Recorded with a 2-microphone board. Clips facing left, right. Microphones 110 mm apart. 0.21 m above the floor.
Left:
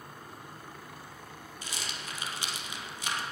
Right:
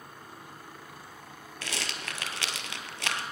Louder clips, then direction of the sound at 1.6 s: Right 4 dB; 80° right.